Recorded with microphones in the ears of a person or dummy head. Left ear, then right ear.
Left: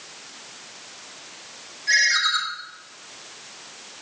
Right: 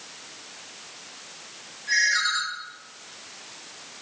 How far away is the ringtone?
About 5 m.